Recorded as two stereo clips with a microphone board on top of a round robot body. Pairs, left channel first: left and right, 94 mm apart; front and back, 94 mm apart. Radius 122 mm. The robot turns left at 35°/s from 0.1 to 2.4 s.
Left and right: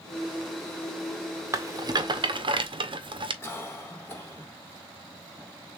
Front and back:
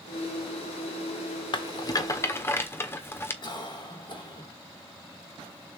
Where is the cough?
25° left, 3 m.